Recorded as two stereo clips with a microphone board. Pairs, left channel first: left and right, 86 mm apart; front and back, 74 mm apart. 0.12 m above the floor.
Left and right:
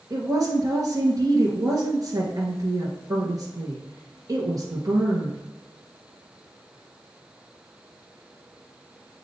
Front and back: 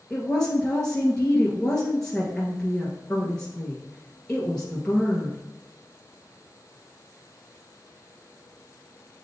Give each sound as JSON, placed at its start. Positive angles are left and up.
{"t": 0.1, "sound": "a woman speaking", "azimuth_deg": -80, "distance_m": 1.7}